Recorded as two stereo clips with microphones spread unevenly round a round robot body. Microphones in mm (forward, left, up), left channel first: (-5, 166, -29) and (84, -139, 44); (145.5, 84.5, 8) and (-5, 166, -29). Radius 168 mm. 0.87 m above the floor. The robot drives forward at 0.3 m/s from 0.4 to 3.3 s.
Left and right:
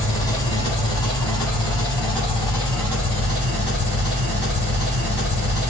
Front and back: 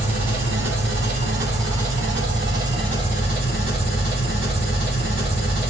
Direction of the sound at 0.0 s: 175° right.